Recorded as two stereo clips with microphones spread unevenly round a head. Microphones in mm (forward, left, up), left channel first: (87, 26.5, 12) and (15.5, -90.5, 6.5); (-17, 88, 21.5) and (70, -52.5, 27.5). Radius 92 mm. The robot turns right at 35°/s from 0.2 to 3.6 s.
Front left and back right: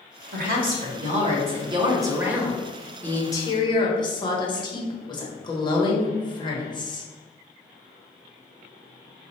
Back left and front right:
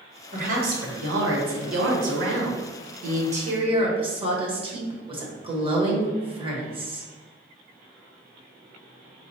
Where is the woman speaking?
115° right, 1.2 m; by 7.1 s straight ahead, 1.2 m.